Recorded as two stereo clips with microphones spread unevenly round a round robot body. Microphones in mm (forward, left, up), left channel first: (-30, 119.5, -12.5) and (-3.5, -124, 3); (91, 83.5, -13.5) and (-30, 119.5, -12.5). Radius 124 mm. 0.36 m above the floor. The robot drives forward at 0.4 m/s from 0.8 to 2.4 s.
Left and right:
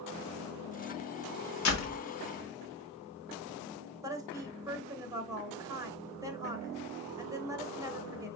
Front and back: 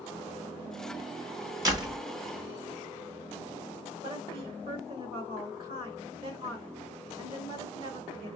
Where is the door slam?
105° left, 1.8 m; by 2.0 s 110° left, 1.9 m.